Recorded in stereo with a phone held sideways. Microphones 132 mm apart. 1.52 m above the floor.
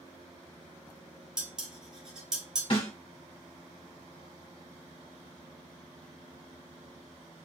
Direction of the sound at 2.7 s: 40° left (ahead or behind).